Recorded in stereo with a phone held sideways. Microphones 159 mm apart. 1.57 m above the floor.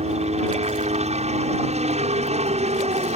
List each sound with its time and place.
0.0 s a helicopter: 45° right (ahead or behind)